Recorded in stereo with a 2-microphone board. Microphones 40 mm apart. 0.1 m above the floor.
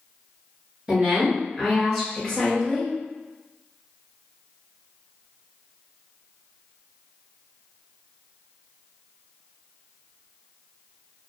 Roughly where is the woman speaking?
Right.